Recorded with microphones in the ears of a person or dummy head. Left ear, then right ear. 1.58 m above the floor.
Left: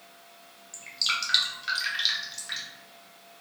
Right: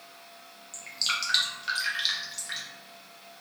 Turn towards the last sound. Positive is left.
turn(degrees=0)  # may be behind; listen again after turning